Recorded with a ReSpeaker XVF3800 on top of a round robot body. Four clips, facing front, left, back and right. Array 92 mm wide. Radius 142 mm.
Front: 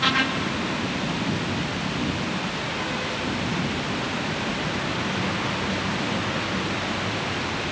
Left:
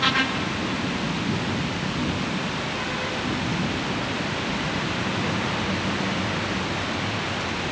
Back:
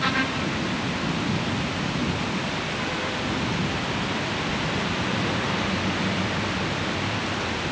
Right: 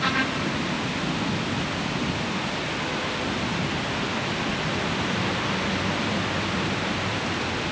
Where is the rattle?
I don't hear a rattle.